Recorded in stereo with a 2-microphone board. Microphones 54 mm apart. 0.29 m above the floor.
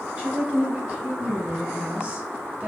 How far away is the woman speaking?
About 1.3 m.